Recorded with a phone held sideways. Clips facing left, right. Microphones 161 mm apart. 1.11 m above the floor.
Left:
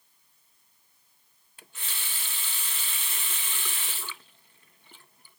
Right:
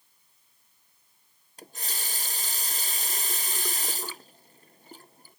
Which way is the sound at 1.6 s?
40° right (ahead or behind).